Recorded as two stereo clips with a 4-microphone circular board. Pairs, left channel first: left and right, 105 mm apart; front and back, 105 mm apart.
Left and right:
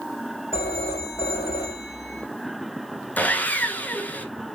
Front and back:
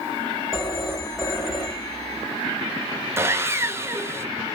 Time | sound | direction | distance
0.5 | a phone ringing | 90° left | 5 m
3.2 | sawing | 150° left | 1.1 m